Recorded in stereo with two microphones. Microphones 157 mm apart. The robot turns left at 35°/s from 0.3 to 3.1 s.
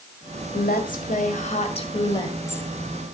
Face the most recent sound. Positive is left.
turn(degrees=0)